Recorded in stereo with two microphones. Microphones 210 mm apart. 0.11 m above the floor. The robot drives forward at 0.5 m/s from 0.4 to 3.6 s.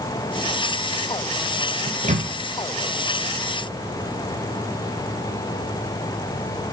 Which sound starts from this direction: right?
A microwave, at 1.9 s.